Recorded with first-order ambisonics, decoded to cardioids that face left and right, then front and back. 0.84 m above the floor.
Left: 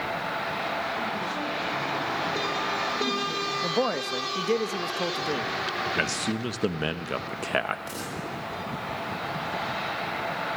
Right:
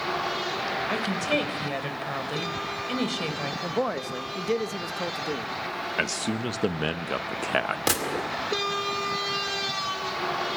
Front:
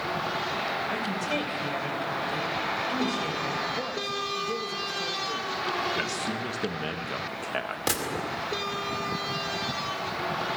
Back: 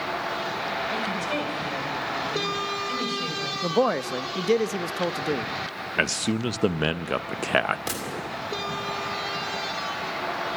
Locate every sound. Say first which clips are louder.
0.9 s a woman speaking: right 3 dB, back 2 dB; 90° right, 3 m
3.6 s a man speaking: left 1 dB, back 7 dB; straight behind, 0.6 m
6.0 s a man speaking: even, back 4 dB; 170° right, 0.6 m
7.9 s a gunshot: right 8 dB, front 2 dB; 75° right, 2 m